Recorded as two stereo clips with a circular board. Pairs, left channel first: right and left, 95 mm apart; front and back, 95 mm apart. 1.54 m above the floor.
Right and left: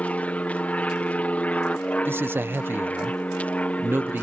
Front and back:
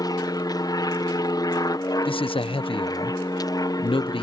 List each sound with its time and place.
0.0 s an aircraft: 20° right
2.0 s a man speaking: 25° left